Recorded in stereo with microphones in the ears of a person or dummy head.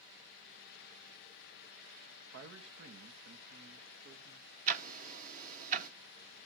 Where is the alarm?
I don't hear an alarm.